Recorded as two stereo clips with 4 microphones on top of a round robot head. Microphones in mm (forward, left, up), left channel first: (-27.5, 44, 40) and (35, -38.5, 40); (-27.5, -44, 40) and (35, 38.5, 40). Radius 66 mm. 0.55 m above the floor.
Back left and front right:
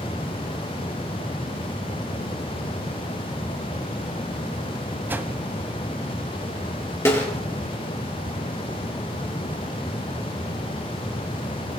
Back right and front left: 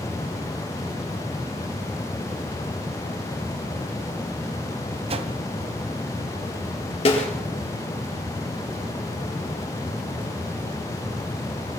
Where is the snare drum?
165° right, 6 m.